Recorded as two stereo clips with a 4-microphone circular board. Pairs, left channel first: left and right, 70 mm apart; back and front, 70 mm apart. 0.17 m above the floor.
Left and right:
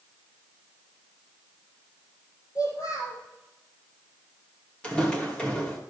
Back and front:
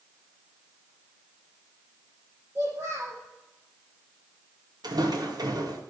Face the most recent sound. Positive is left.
turn(degrees=15)